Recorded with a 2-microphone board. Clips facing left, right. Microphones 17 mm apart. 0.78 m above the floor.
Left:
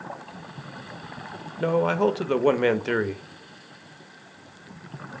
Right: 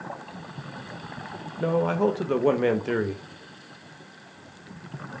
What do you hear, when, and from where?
1.6 s a man speaking: 40° left (ahead or behind), 0.5 m